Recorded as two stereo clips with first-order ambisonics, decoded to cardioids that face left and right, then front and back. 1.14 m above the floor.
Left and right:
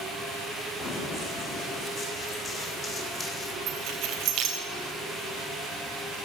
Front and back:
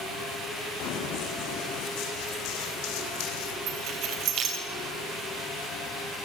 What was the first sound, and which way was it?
Running footsteps, 25° left.